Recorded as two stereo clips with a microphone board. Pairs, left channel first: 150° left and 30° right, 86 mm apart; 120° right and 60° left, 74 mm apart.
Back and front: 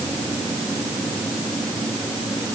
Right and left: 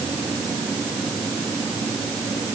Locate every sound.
Only background noise.